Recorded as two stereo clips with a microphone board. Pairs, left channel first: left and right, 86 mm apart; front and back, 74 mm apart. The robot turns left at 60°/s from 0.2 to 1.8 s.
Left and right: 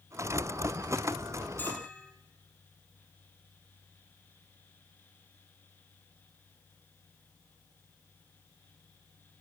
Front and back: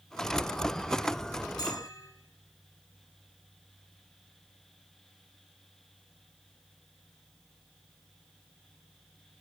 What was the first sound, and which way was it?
A bell, 25° left.